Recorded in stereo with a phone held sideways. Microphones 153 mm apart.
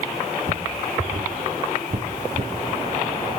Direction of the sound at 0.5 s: 70° right (ahead or behind).